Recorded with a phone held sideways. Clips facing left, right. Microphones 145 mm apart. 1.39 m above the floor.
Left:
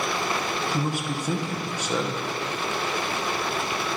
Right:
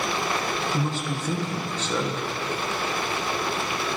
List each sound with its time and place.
0.7 s a man speaking: 10° left (ahead or behind), 1.1 m